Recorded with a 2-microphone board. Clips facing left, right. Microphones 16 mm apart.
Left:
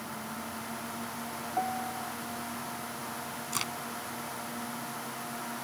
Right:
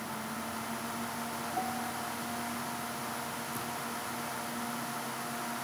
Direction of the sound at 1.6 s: 35° left (ahead or behind).